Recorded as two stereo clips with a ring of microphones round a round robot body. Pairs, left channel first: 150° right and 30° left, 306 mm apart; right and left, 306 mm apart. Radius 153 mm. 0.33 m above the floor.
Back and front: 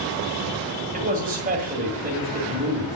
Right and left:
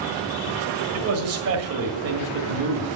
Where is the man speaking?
80° left, 1.8 m.